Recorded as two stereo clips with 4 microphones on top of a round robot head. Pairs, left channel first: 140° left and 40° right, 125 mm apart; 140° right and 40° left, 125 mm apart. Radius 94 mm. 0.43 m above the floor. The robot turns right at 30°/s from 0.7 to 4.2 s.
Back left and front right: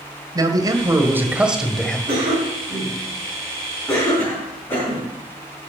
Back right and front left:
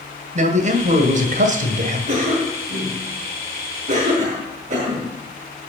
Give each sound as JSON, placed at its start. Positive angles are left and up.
{"t": 0.3, "sound": "a man speaking", "azimuth_deg": 20, "distance_m": 2.0}
{"t": 2.1, "sound": "a cough", "azimuth_deg": 5, "distance_m": 5.0}